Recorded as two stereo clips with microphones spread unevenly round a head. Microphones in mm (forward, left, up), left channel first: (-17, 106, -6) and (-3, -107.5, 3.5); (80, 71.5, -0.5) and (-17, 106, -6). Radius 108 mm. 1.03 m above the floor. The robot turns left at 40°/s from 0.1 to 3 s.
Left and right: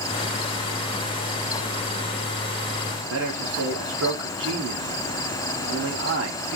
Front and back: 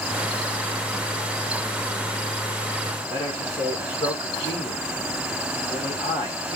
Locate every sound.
3.1 s a man speaking: 75° right, 1.3 m